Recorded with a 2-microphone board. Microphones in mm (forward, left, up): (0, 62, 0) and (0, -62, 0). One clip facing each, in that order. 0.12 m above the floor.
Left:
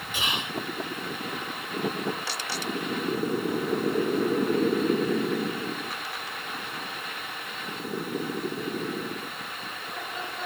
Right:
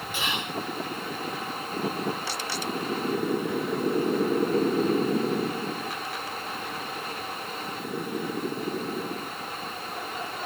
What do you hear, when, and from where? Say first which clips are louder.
0.1 s whispering: even; 15° left (ahead or behind), 1.5 m